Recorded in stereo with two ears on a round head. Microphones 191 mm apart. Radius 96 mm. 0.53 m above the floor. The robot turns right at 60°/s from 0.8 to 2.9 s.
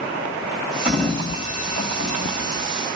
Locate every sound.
0.8 s a sliding door: 5° right (ahead or behind), 2 m; by 2.7 s 70° left (ahead or behind), 2 m